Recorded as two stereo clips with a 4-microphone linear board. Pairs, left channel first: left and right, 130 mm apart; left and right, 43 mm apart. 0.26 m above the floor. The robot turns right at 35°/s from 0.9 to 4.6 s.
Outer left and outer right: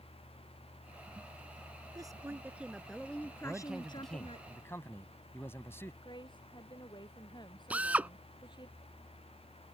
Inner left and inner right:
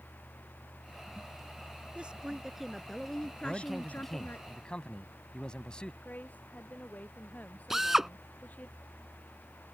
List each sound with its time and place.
1.9 s a woman speaking: 30° right; by 4.4 s 55° left
3.4 s a man speaking: 15° right; by 5.9 s 25° left
6.0 s a woman speaking: 35° left (ahead or behind)
7.7 s a drill: 10° right (ahead or behind)